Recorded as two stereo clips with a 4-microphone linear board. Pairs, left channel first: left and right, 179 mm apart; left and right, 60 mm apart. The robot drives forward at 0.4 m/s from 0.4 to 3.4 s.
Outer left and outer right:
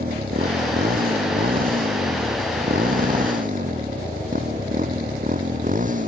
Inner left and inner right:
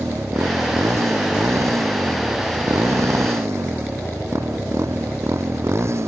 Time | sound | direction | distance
0.0 | a motorcycle | 60° right (ahead or behind) | ?